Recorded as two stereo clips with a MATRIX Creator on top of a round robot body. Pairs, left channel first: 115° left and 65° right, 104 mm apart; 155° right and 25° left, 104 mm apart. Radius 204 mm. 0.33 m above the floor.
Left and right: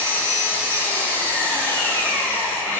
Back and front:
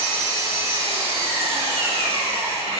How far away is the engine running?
About 2.5 m.